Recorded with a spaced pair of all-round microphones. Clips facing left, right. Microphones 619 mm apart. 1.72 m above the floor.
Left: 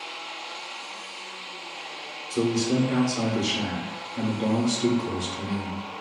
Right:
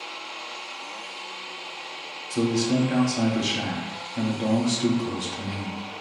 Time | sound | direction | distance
2.3 | a man speaking | 20° right (ahead or behind) | 0.6 m